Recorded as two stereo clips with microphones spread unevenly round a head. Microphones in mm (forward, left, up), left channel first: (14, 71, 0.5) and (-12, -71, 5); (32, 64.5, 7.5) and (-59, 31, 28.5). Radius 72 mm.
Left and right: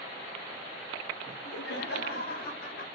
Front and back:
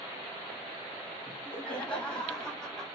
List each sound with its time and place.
1.3 s laughter: 95° left, 7.5 m; by 2.9 s 110° left, 6.5 m